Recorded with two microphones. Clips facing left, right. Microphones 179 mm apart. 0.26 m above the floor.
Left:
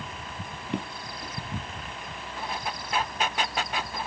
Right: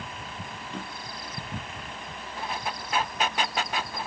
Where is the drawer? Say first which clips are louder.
Left 8 dB; 65° left (ahead or behind), 2 m.